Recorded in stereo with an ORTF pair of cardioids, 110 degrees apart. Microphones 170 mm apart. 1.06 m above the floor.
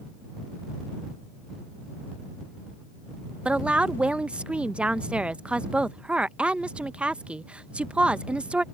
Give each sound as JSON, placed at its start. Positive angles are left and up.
{"t": 3.5, "sound": "a woman speaking", "azimuth_deg": -5}